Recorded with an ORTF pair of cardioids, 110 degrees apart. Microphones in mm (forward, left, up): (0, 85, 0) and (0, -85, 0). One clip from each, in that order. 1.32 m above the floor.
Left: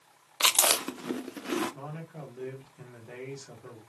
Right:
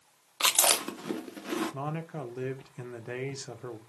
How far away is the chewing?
About 0.6 m.